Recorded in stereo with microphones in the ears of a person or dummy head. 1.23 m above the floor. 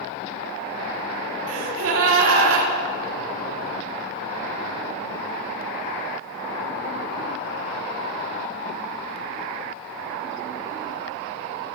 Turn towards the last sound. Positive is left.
turn(degrees=-75)  # may be behind; listen again after turning